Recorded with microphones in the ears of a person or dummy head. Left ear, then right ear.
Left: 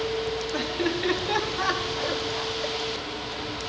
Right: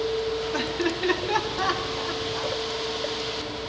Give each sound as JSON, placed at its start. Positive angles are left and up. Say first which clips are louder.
{"t": 0.5, "sound": "laughter", "louder": "right 1 dB", "side_deg": -10, "distance_m": 3.5}